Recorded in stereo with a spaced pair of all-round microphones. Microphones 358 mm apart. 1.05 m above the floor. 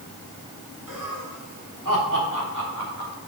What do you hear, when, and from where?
0.9 s laughter: 60° right (ahead or behind), 4 m; by 3.2 s 50° right (ahead or behind), 2.5 m